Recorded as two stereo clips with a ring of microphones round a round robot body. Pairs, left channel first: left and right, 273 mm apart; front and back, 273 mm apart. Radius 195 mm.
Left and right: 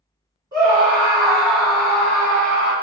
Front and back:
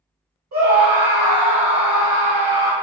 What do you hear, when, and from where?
0.5 s a scream: 165° right, 1.7 m; by 2.7 s 125° left, 1.0 m